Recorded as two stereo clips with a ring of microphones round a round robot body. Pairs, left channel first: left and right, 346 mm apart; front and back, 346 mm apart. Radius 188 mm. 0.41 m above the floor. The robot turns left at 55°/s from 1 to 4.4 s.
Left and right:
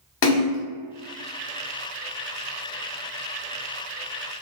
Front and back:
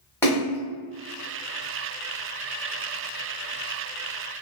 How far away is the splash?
About 0.9 m.